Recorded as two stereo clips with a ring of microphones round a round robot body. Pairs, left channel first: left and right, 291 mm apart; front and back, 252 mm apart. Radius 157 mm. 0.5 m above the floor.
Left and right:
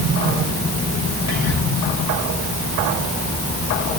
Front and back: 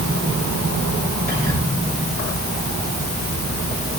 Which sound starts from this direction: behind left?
Whispering, at 1.3 s.